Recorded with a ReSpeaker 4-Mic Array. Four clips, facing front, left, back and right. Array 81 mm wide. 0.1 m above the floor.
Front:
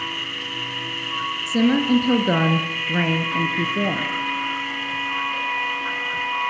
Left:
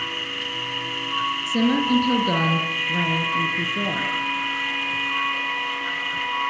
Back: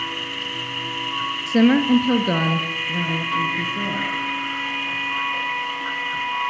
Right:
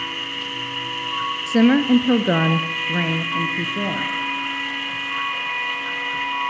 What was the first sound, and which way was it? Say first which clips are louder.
A woman speaking: right 6 dB, back 3 dB; 130° right.